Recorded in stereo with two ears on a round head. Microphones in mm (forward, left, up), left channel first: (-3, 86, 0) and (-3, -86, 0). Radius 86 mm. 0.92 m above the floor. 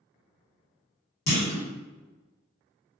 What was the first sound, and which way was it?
A clunk, 55° left (ahead or behind).